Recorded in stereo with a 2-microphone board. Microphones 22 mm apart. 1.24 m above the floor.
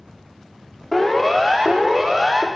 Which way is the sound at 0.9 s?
10° left (ahead or behind).